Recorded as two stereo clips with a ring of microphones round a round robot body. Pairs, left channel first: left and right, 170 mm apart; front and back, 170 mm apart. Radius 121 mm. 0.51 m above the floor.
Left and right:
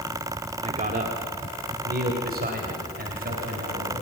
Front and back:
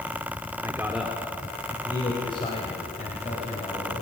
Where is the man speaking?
115° right, 1.4 m; by 4.0 s 60° right, 4.5 m.